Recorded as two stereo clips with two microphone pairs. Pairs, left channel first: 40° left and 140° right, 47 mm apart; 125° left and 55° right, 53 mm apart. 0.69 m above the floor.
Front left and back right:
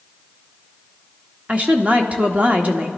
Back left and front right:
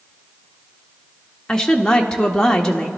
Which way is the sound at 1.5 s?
170° right.